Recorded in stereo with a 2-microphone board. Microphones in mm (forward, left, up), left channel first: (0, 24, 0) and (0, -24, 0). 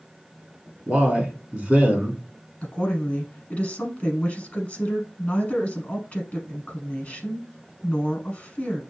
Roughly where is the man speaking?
Right.